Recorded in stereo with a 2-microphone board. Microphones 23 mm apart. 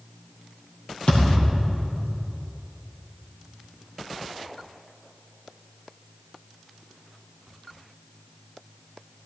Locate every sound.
1.1 s a thud: 70° left (ahead or behind), 4 m